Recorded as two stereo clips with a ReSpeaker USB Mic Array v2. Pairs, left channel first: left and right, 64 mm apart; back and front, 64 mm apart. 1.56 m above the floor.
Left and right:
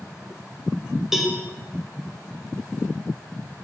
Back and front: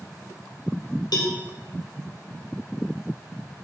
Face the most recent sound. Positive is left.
turn(degrees=-175)